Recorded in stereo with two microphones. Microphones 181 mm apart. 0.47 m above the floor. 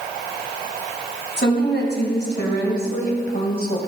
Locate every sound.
1.4 s a woman speaking: 75° left (ahead or behind), 3 m; by 3.8 s 55° left (ahead or behind), 2.5 m